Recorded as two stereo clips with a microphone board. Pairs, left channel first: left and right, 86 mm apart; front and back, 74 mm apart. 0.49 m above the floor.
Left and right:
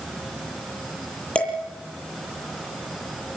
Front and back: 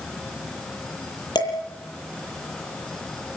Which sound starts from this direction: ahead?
Dishes clattering, at 1.4 s.